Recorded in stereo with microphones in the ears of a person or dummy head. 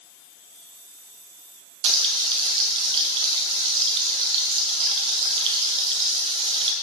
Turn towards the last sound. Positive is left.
turn(degrees=-25)  # may be behind; listen again after turning